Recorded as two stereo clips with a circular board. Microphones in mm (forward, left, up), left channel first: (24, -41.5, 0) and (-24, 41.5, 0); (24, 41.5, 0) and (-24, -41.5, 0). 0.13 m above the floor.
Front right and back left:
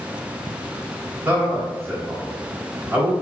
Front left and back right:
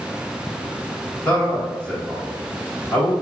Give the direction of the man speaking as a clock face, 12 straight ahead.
8 o'clock.